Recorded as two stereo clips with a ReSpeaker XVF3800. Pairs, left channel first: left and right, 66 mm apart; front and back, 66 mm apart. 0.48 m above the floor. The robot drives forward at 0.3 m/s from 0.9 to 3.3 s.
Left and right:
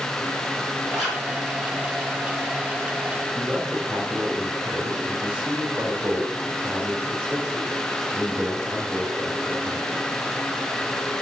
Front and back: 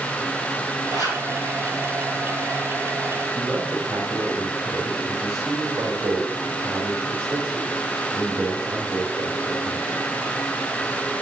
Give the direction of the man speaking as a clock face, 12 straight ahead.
5 o'clock.